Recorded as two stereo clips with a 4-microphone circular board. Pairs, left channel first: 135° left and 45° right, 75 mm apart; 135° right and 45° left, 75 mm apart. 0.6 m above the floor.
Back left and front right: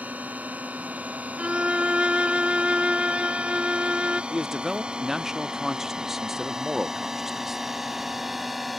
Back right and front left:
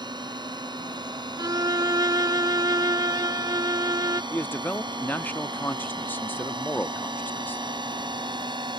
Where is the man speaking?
125° right.